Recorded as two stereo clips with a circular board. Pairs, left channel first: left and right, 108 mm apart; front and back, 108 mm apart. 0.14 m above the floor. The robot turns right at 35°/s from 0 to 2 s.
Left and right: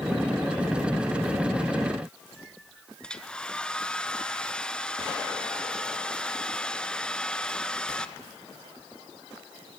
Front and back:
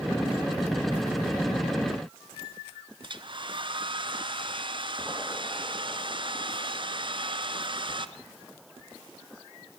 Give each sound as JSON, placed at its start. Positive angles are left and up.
{"t": 3.0, "sound": "a hair dryer", "azimuth_deg": 170, "distance_m": 1.1}